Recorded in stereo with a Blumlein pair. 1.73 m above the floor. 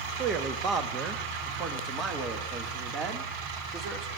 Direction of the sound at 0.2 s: 30° right.